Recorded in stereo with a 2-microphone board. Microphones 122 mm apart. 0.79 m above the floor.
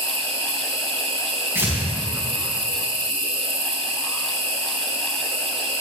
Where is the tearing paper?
20° right (ahead or behind), 4 m.